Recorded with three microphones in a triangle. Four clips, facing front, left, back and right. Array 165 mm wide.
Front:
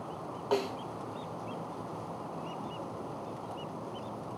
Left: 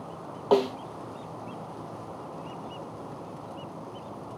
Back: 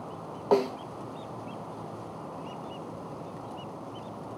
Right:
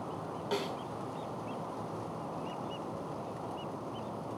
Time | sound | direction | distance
0.5 | a snare drum | 130° left | 1.0 m